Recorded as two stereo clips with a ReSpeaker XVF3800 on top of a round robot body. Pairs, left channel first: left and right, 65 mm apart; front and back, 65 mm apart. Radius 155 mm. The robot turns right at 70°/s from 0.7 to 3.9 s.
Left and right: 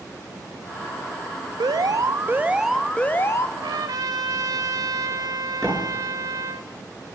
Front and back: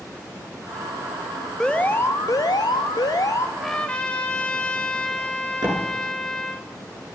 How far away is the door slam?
About 10 m.